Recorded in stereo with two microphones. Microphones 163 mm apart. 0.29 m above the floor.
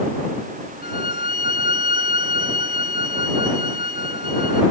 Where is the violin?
65° left (ahead or behind).